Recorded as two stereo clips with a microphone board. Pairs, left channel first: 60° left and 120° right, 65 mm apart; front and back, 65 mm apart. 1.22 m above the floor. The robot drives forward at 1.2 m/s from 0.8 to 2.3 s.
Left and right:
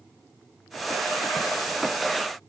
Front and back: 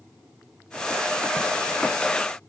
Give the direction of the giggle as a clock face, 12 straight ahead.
I don't hear a giggle.